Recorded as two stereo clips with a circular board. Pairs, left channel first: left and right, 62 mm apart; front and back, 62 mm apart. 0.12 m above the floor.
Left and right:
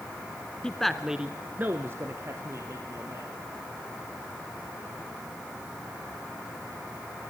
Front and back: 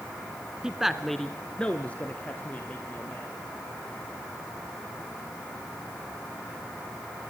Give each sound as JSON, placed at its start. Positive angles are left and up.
{"t": 0.6, "sound": "a man speaking", "azimuth_deg": 130, "distance_m": 1.4}